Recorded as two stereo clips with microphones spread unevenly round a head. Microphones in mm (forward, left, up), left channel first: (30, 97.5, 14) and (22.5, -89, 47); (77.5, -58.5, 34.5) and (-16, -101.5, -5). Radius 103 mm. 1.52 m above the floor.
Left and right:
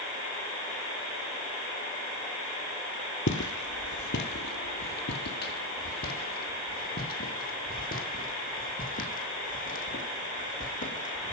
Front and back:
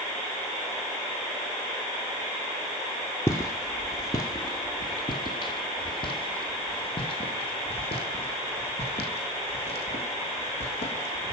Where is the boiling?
I don't hear boiling.